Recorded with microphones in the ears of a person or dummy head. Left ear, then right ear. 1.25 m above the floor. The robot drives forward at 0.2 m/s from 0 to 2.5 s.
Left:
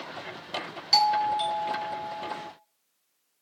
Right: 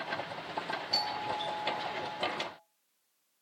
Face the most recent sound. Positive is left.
turn(degrees=60)  # may be behind; listen again after turning